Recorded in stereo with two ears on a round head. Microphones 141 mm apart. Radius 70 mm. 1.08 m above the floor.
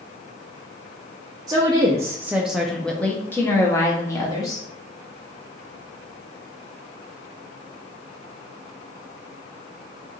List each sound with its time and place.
1.5 s a woman speaking: 25° right (ahead or behind), 0.7 m; by 4.7 s 20° left (ahead or behind), 1.3 m